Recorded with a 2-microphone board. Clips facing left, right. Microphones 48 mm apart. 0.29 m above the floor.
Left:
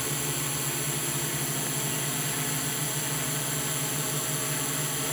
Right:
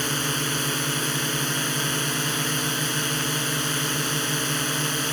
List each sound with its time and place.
0.0 s a drone: 65° right (ahead or behind)